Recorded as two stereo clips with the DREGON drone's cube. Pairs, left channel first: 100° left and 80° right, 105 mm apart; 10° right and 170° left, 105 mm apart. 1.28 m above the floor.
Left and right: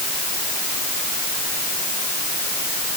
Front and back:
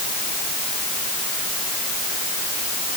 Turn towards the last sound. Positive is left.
No sound to turn to.